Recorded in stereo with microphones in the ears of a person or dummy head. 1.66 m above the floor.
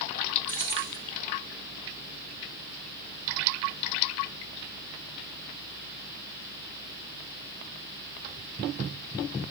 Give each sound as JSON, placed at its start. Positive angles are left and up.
{"t": 0.5, "sound": "keys jangling", "side_deg": 15, "distance_m": 0.6}